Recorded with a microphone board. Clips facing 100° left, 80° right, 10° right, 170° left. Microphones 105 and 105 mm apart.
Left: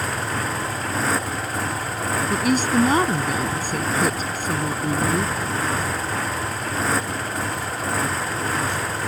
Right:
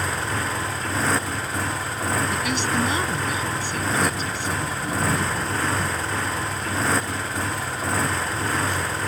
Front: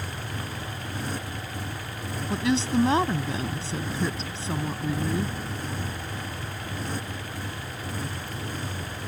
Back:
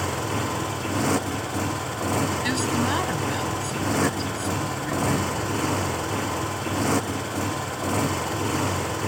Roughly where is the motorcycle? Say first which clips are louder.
Left 1 dB, back 9 dB; behind.